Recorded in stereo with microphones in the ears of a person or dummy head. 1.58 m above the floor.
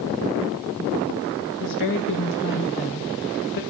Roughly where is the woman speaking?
Left.